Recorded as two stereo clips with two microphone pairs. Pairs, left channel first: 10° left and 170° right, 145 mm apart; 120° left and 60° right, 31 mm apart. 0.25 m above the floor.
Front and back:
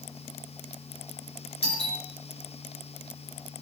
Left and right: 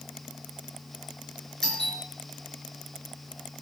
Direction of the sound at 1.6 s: 50° left.